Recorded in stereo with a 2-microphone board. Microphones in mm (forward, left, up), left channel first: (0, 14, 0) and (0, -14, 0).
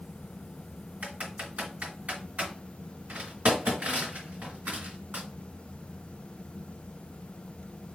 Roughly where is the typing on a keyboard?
Right.